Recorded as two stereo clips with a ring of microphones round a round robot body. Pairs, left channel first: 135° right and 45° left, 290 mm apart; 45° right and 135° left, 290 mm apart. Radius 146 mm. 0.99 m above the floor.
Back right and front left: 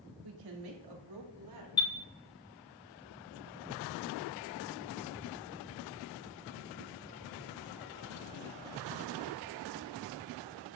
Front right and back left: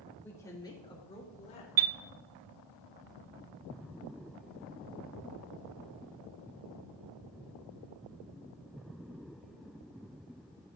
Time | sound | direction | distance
0.2 | a woman speaking | 40° left | 2.5 m
1.8 | a chime | 150° left | 0.5 m